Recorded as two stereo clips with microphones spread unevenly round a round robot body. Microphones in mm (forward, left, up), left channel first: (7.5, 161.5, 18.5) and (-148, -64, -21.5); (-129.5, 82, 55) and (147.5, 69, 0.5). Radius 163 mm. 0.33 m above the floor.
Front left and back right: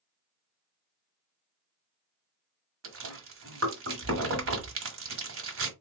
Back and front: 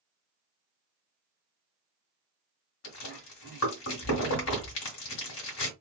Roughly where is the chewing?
Behind right.